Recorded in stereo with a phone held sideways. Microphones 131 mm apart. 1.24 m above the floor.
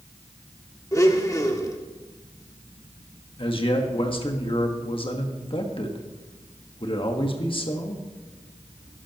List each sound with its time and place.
0.9 s a blender: 25° left (ahead or behind), 1.1 m
3.4 s a man speaking: 40° left (ahead or behind), 1.4 m